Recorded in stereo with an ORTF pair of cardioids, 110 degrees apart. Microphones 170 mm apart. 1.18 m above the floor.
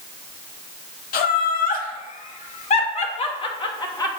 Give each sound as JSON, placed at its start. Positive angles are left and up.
{"t": 1.1, "sound": "laughter", "azimuth_deg": 55, "distance_m": 2.5}